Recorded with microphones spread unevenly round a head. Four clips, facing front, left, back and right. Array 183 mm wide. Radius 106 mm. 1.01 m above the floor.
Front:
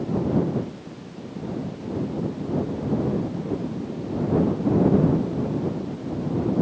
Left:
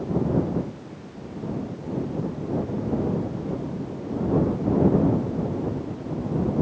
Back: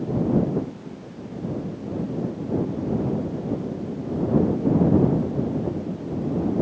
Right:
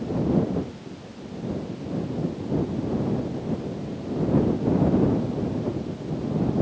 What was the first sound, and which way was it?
Only background noise.